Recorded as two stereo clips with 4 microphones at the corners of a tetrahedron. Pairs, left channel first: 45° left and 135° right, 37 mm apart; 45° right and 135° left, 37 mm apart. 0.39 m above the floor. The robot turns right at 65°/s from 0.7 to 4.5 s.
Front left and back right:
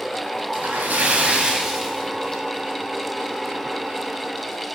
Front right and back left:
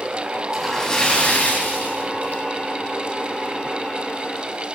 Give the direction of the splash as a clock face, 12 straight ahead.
4 o'clock.